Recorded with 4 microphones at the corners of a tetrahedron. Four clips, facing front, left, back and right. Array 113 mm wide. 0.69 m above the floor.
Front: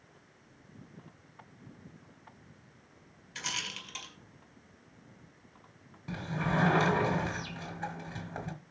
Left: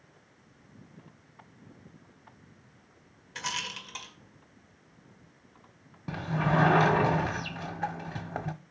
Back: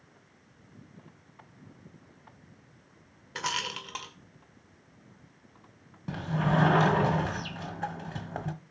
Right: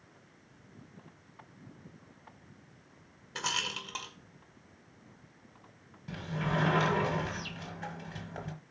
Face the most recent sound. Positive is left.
turn(degrees=125)